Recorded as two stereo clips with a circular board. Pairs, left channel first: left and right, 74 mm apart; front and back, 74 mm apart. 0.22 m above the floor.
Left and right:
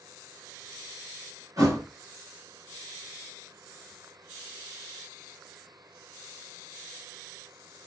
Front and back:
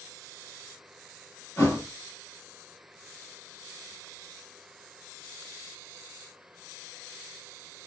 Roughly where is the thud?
Ahead right.